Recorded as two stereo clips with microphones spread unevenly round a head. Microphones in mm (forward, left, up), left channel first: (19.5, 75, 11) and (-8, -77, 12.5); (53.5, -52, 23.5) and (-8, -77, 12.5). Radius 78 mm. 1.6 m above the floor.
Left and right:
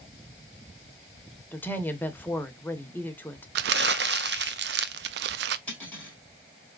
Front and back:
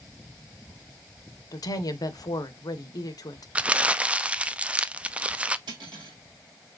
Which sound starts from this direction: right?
Crumpling, at 3.5 s.